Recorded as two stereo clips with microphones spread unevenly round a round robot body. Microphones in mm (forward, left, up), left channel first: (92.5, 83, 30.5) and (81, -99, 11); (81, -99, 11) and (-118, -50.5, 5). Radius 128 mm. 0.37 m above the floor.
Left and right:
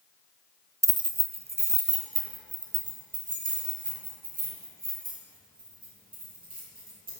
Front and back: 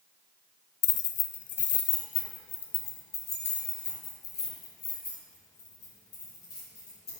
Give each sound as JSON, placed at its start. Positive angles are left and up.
{"t": 0.8, "sound": "keys jangling", "azimuth_deg": -30, "distance_m": 0.8}